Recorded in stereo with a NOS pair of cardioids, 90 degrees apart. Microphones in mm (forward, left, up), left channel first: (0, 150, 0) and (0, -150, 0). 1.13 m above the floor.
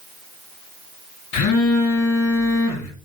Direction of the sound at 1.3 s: 65° left.